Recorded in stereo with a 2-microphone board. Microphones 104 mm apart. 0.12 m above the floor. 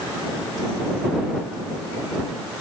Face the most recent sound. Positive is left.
No sound to turn to.